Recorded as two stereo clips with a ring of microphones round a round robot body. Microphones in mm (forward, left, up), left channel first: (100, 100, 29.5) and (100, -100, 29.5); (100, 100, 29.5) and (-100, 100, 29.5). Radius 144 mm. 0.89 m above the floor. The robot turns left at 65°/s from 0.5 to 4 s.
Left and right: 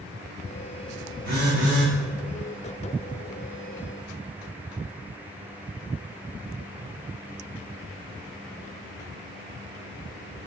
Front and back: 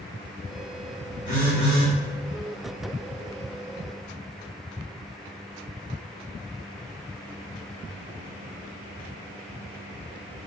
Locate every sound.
1.2 s a phone buzzing: 55° right, 1.7 m; by 1.9 s 95° right, 1.7 m